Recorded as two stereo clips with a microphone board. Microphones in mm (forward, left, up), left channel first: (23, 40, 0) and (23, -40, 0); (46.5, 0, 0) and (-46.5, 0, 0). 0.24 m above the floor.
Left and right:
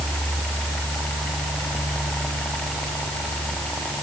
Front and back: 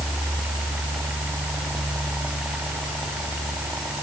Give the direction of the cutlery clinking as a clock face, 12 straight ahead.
No cutlery clinking in this recording.